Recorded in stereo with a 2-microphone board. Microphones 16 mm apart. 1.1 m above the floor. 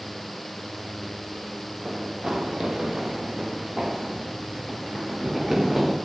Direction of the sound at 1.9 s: 45° right (ahead or behind).